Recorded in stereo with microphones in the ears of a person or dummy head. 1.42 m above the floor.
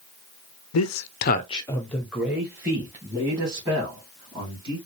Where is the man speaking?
80° left, 0.6 m; by 4.8 s 25° right (ahead or behind), 3 m.